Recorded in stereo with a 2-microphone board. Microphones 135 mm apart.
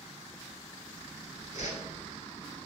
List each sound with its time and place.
1.5 s a whoosh: 75° left (ahead or behind), 1.0 m